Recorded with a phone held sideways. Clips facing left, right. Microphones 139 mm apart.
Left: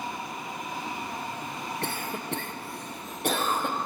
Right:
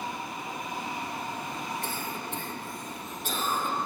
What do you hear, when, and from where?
1.8 s a cough: 70° left (ahead or behind), 1.3 m